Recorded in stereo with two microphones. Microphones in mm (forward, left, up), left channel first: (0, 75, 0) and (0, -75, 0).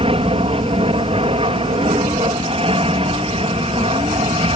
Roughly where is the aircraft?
Right.